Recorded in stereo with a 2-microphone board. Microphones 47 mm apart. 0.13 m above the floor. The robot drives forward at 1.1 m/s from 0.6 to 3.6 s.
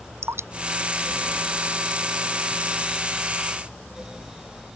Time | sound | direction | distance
0.2 | dripping | 70° right (ahead or behind) | ?